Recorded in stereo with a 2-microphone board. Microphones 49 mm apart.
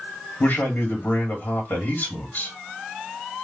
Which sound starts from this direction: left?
A man speaking, at 0.4 s.